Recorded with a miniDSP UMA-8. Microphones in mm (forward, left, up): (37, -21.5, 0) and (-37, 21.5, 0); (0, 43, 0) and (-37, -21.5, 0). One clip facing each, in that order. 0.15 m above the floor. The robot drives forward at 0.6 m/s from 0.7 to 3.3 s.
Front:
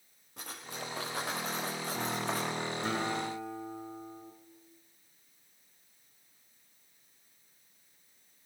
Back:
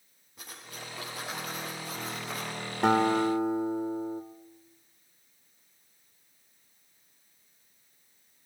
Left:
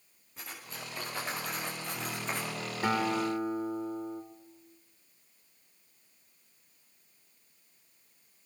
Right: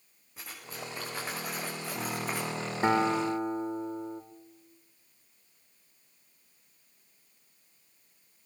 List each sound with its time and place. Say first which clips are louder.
0.4 s cutlery clinking: front 3 dB, right 2 dB; 35° right, 7.5 m; by 2.6 s 40° right, 7 m
2.8 s a guitar: back 13 dB, right 3 dB; 175° left, 2.5 m